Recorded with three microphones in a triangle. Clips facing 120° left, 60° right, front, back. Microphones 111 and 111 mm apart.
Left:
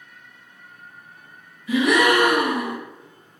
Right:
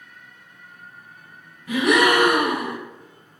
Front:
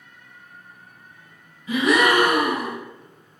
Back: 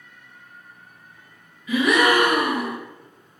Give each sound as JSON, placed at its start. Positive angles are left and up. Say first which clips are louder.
{"t": 1.7, "sound": "a gasp", "louder": "even, even", "azimuth_deg": -50, "distance_m": 1.6}